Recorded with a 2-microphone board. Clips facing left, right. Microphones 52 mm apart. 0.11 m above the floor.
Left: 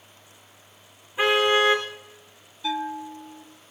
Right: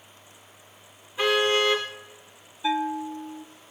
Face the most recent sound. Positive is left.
turn(degrees=-25)  # may be behind; listen again after turning